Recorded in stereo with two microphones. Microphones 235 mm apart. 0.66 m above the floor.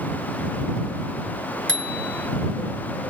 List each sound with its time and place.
1.7 s a bicycle bell: 55° right (ahead or behind)